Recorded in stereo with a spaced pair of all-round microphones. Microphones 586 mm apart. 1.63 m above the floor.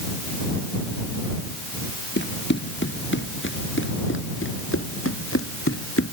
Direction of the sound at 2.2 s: 20° left (ahead or behind).